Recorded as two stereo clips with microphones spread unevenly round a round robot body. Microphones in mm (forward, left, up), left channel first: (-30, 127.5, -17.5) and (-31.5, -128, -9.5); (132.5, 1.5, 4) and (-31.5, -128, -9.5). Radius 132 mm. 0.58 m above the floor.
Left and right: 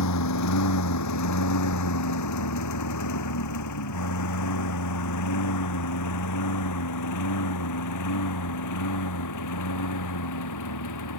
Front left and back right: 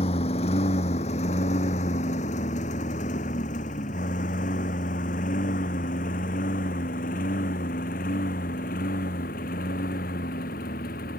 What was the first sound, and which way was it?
A lawn mower, 105° left.